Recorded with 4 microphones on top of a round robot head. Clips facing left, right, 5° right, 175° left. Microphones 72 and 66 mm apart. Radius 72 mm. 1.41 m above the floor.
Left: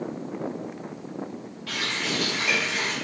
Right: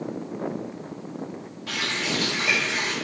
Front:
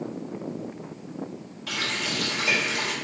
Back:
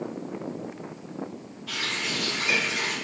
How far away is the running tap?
About 0.8 m.